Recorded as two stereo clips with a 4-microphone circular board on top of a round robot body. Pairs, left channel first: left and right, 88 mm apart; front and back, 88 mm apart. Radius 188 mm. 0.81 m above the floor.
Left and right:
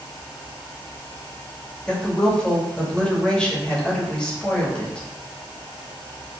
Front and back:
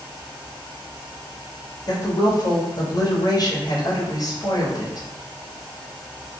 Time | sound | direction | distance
1.9 | a woman speaking | 15° left | 1.2 m